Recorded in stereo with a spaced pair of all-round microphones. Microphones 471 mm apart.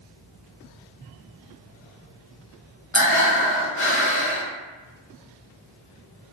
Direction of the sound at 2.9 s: 35° left (ahead or behind).